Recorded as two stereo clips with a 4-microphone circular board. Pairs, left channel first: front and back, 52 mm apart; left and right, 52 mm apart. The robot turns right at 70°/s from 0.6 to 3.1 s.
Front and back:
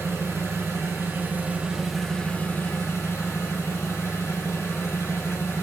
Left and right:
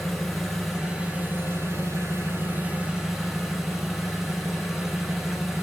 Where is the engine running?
175° left, 2.5 m; by 5.6 s 10° right, 2.5 m.